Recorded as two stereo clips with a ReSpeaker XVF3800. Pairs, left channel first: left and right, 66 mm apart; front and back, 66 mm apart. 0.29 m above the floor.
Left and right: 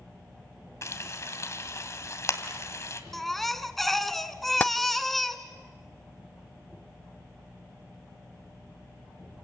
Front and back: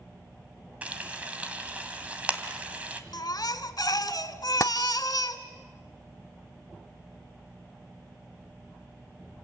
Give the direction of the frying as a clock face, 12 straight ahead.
8 o'clock.